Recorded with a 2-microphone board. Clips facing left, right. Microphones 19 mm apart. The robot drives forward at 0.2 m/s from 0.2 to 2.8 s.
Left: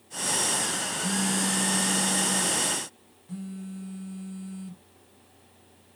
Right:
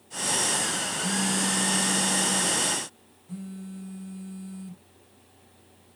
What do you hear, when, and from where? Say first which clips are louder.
1.0 s a phone buzzing: even; 15° left (ahead or behind), 2 m